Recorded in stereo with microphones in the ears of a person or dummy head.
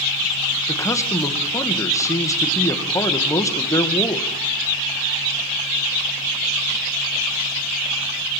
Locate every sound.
0.7 s a man speaking: 15° left (ahead or behind), 2 m